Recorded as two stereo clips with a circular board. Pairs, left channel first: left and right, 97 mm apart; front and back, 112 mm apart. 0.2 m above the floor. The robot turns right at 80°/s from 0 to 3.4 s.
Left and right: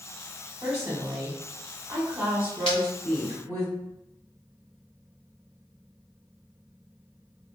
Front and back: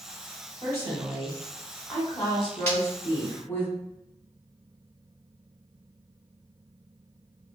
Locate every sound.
0.6 s a woman speaking: 175° right, 1.0 m; by 3.7 s 45° left, 1.0 m
2.7 s breaking glass: 70° left, 1.2 m; by 2.8 s 80° left, 1.2 m